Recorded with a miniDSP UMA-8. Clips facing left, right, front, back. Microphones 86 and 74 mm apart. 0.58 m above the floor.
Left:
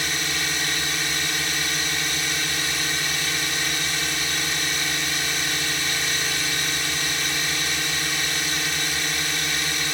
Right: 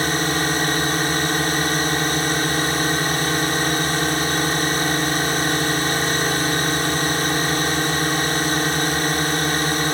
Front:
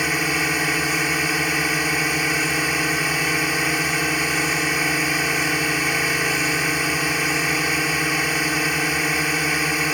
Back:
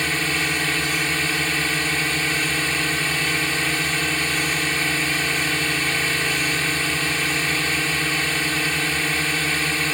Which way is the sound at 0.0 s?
70° right.